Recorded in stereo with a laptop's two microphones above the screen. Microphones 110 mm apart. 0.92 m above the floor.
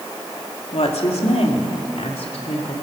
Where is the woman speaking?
70° left (ahead or behind), 2.5 m; by 2.7 s 75° left (ahead or behind), 3.5 m.